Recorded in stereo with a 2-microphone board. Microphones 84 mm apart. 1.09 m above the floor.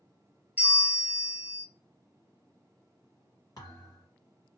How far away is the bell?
About 0.9 m.